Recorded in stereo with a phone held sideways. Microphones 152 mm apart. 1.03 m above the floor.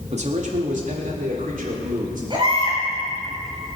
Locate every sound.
0.1 s a man speaking: 50° right (ahead or behind), 2 m; by 2.2 s 75° right (ahead or behind), 4.5 m
2.3 s a baby crying: 35° right (ahead or behind), 6.5 m